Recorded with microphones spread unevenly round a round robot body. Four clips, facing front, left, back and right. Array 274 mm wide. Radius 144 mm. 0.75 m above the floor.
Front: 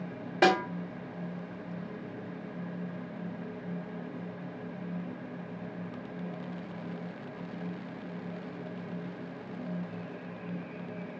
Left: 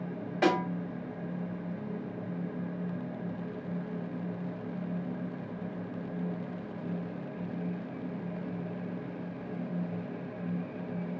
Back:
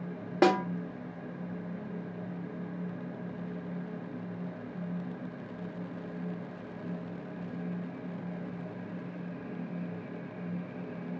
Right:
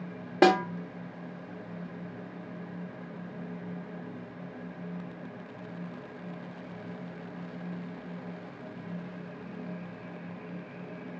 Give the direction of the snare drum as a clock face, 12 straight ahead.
4 o'clock.